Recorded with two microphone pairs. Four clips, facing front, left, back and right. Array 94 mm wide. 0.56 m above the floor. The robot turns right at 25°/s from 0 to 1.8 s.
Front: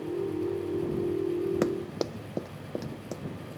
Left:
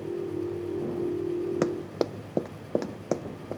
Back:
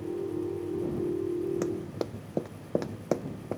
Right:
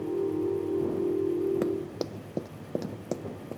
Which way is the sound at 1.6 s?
75° left.